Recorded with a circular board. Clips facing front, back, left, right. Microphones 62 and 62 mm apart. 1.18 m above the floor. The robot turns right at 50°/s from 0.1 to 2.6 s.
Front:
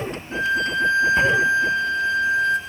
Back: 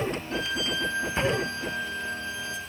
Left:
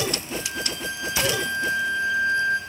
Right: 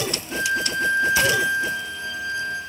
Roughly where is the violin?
Right.